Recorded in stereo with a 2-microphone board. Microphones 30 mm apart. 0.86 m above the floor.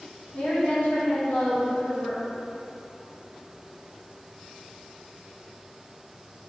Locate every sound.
0.3 s a woman speaking: 55° left (ahead or behind), 1.3 m; by 2.2 s 65° left (ahead or behind), 0.8 m